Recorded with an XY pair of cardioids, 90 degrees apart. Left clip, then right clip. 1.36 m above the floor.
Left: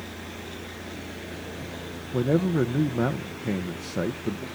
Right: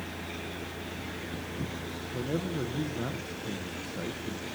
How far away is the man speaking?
About 0.9 m.